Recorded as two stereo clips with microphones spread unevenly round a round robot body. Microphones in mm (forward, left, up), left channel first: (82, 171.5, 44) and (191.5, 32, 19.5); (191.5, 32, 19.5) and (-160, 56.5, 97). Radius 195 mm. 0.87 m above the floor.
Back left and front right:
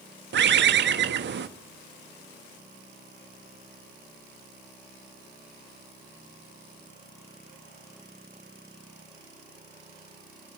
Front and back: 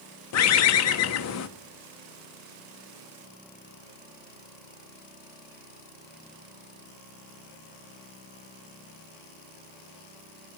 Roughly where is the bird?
Ahead right.